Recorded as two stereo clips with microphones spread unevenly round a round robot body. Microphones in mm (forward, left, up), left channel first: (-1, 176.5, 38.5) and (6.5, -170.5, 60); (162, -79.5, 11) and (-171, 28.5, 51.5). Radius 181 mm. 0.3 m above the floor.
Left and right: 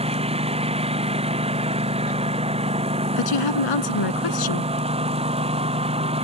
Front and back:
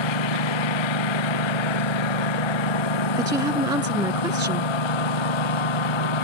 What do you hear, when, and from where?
0.0 s a lawn mower: 15° right
3.2 s a woman speaking: 80° left